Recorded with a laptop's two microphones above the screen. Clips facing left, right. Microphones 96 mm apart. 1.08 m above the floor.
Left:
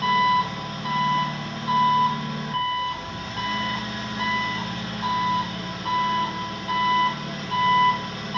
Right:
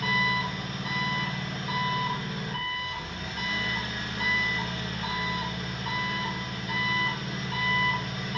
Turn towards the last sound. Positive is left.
turn(degrees=80)